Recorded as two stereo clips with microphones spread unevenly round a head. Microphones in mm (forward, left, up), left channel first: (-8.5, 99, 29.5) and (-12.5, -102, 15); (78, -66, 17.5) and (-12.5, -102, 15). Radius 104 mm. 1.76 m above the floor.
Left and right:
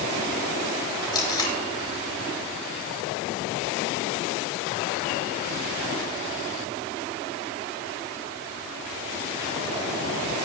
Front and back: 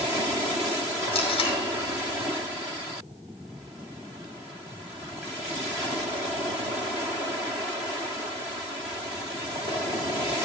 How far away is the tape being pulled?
About 4 m.